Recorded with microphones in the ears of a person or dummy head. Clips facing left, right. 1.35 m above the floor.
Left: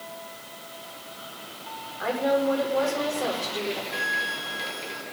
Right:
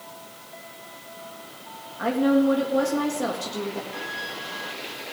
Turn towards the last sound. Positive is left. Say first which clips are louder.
# left 1 dB
turn(degrees=70)  # may be behind; listen again after turning